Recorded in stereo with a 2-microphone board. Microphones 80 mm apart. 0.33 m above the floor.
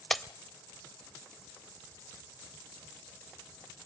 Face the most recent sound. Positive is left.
turn(degrees=5)  # may be behind; listen again after turning